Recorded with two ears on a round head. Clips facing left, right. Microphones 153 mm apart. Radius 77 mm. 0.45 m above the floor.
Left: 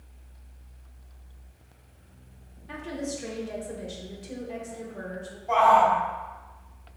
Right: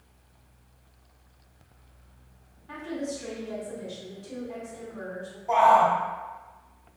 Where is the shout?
25° right (ahead or behind), 1.9 m.